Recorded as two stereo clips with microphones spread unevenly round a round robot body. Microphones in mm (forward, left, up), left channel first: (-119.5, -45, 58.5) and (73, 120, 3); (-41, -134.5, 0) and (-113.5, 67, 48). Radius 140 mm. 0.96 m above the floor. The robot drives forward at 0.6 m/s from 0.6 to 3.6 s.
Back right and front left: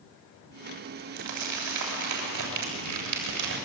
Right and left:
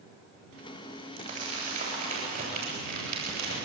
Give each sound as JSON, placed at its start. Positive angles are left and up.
{"t": 1.2, "sound": "crumpling", "azimuth_deg": 45, "distance_m": 7.5}